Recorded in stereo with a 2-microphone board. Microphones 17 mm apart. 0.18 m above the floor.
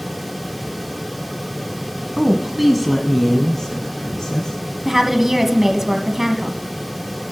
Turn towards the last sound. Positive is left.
turn(degrees=-20)  # may be behind; listen again after turning